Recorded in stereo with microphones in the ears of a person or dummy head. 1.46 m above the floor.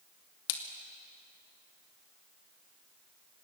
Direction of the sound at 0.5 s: 80° left.